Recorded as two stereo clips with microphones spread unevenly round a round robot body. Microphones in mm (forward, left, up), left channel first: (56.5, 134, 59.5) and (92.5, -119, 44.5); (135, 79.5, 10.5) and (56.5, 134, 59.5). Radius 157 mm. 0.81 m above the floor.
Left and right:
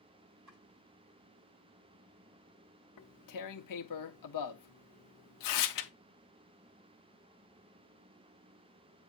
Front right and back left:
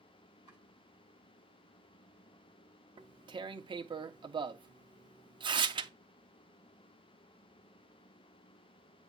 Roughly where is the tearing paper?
Behind left.